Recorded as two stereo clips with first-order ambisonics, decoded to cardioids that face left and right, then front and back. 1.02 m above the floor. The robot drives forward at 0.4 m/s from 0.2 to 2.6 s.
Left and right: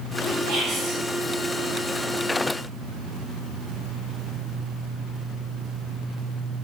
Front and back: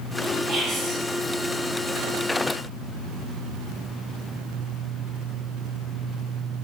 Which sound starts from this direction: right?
Whispering, at 0.5 s.